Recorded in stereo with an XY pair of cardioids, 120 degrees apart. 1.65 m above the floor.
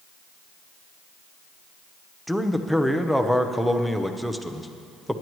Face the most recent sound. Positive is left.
turn(degrees=-5)